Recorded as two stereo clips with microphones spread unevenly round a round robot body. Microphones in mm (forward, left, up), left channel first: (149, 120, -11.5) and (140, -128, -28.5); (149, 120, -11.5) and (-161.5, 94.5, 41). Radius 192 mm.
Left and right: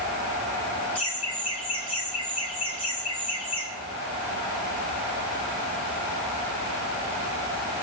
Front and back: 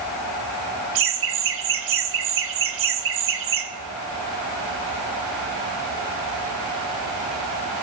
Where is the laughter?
155° left, 1.3 m.